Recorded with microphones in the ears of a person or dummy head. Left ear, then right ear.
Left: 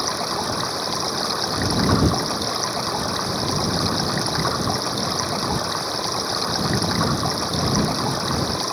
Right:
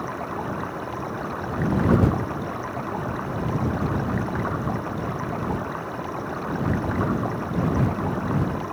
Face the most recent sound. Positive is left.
turn(degrees=85)